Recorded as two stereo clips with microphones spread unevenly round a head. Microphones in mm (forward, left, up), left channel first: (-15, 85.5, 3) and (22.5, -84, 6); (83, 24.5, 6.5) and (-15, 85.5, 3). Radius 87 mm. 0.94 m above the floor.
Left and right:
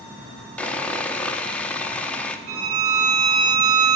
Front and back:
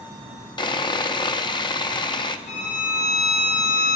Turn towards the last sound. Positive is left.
turn(degrees=-80)